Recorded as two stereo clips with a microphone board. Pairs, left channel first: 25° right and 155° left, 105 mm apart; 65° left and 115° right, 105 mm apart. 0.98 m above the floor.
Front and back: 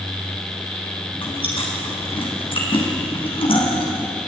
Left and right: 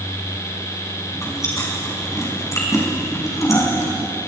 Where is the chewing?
5° left, 4.5 m.